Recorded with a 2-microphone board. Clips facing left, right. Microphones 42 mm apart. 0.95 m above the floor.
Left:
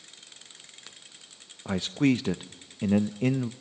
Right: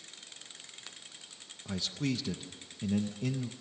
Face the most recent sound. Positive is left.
turn(degrees=45)  # may be behind; listen again after turning